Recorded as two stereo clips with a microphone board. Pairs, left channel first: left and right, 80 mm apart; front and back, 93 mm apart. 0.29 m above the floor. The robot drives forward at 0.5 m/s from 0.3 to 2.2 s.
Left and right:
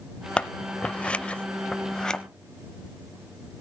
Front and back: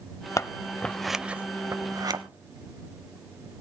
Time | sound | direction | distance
0.4 | scissors | 20° left | 0.6 m